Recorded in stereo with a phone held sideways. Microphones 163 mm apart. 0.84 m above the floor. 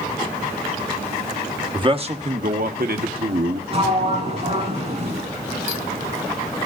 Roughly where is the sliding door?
Right.